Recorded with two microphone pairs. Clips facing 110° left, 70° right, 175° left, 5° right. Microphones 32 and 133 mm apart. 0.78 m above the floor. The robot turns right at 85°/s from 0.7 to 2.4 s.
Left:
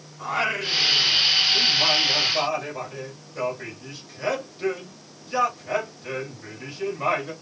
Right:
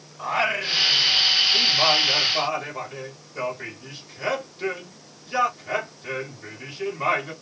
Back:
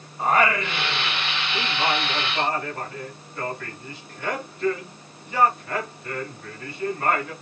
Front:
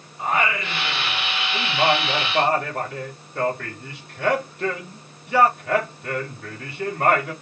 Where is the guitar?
I don't hear a guitar.